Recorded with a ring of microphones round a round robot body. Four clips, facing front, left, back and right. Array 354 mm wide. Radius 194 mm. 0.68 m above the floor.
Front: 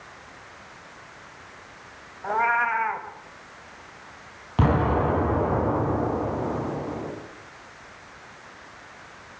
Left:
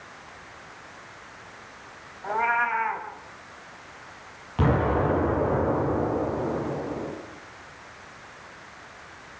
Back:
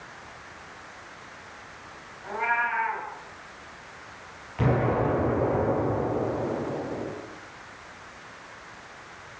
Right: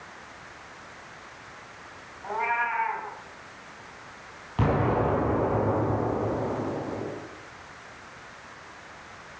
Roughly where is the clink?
I don't hear a clink.